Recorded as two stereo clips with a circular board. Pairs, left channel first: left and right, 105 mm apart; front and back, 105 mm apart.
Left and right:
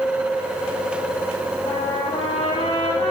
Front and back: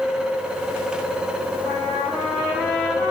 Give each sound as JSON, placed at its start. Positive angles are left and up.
{"t": 1.6, "sound": "a trumpet", "azimuth_deg": 65, "distance_m": 6.5}